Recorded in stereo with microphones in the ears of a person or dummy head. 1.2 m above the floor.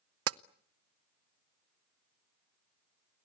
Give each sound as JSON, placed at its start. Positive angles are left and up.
{"t": 0.3, "sound": "tapping", "side_deg": -75, "distance_m": 0.6}